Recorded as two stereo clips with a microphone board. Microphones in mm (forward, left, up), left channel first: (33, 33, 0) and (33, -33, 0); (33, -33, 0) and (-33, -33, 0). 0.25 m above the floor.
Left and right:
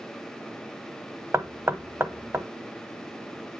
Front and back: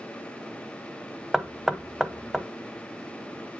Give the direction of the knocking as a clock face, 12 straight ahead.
3 o'clock.